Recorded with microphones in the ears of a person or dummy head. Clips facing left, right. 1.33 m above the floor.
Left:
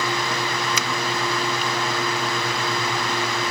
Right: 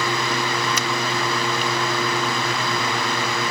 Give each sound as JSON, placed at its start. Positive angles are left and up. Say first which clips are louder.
{"t": 0.8, "sound": "a finger snap", "louder": "right 2 dB", "side_deg": 75}